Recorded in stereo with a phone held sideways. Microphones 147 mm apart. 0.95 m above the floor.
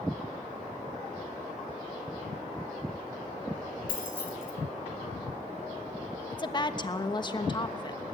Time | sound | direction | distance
3.9 | keys jangling | 85° left | 4 m
6.3 | a woman speaking | 30° left (ahead or behind) | 1.2 m